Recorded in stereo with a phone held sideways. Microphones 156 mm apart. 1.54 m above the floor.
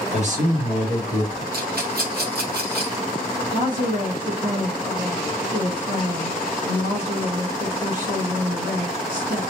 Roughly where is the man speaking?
Right.